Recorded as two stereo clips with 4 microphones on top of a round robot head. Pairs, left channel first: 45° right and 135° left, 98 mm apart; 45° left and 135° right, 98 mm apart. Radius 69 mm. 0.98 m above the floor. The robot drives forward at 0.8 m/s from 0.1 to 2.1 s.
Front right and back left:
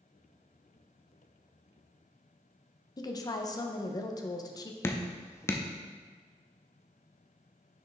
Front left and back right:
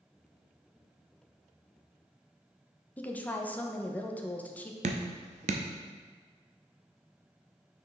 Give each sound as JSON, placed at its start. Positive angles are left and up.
{"t": 3.0, "sound": "a woman speaking", "azimuth_deg": -20, "distance_m": 0.9}
{"t": 4.8, "sound": "dripping", "azimuth_deg": -110, "distance_m": 0.6}